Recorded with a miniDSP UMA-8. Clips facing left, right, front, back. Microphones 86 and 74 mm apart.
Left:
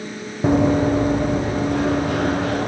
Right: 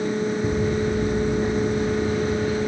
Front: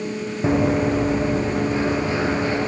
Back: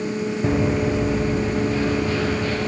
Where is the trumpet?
No trumpet in this recording.